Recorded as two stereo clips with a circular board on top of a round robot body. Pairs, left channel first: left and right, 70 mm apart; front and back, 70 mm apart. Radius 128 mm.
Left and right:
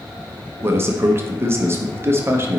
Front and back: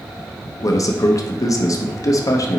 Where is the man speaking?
35° right, 1.0 m.